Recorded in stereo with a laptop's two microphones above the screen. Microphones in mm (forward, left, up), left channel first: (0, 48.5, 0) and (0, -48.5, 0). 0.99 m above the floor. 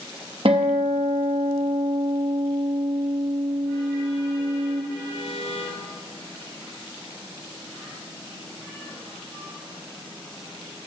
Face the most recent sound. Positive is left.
turn(degrees=-65)  # may be behind; listen again after turning